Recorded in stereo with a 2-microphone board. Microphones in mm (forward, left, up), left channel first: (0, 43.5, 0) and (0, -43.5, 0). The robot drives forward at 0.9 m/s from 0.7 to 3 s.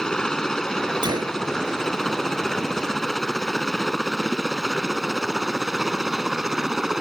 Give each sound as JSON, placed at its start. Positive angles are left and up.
{"t": 0.0, "sound": "a helicopter", "side_deg": 10}
{"t": 1.0, "sound": "a gunshot", "side_deg": -60}